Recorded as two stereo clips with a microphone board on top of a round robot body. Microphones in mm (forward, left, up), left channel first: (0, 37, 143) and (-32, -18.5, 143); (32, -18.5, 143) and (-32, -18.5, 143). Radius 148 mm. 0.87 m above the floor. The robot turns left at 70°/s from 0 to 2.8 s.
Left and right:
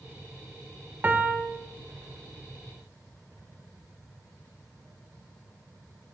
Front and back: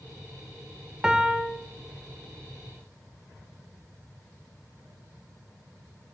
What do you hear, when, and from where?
1.0 s a piano: 115° right, 0.6 m; by 1.5 s 150° right, 0.6 m